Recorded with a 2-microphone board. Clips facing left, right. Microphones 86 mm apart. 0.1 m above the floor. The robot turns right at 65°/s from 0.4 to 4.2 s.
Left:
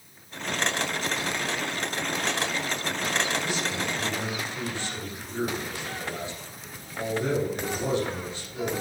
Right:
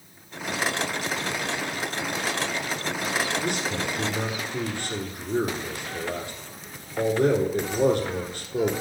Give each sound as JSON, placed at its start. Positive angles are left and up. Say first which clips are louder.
{"t": 3.4, "sound": "a man speaking", "louder": "right 2 dB", "azimuth_deg": -115, "distance_m": 4.0}